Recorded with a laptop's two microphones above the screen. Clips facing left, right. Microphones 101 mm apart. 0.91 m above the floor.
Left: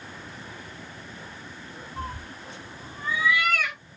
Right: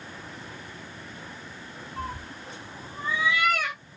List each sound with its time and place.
2.0 s a cat meowing: centre (ahead or behind), 0.6 m; by 3.8 s 25° right (ahead or behind), 1.2 m